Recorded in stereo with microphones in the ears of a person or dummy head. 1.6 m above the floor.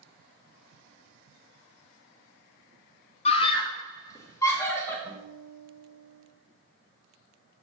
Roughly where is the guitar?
Centre.